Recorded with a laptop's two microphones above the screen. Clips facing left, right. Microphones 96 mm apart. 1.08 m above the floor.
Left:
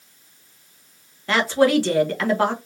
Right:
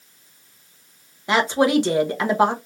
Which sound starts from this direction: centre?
A woman speaking, at 1.3 s.